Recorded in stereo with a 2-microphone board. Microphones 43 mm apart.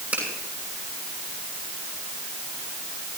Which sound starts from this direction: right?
A finger snap, at 0.1 s.